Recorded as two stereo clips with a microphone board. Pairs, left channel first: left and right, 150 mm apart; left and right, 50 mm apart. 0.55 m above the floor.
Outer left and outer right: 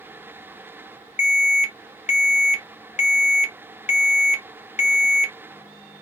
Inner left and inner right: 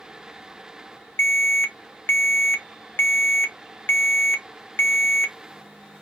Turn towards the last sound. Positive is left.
turn(degrees=50)  # may be behind; listen again after turning